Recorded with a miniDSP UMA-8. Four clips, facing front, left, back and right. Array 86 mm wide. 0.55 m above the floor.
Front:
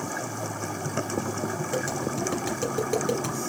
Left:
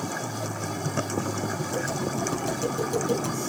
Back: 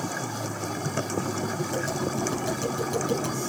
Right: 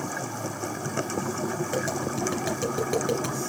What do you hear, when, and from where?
1.7 s tapping: 75° right, 3 m